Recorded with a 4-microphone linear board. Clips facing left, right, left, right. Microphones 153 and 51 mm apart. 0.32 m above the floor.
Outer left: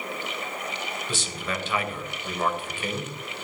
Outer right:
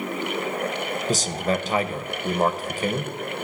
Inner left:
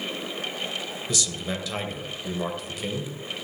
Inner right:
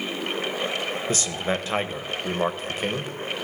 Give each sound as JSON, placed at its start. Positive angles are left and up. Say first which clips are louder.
{"t": 1.1, "sound": "a man speaking", "louder": "outer right 10 dB, inner right 3 dB", "side_deg": -35, "distance_m": 1.4}